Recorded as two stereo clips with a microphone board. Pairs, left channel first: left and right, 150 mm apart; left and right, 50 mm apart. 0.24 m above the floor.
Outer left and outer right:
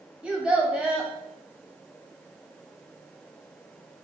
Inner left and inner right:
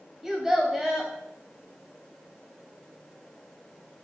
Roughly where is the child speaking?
Centre.